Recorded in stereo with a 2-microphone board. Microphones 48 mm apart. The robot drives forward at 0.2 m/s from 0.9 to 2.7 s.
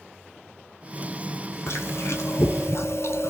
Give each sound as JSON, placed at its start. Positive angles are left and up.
{"t": 1.7, "sound": "chewing", "side_deg": 70, "distance_m": 0.9}